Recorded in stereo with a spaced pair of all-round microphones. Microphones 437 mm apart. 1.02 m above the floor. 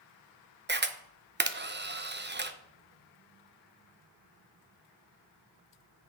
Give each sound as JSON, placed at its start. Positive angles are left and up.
{"t": 0.7, "sound": "a camera shutter", "side_deg": -25, "distance_m": 0.5}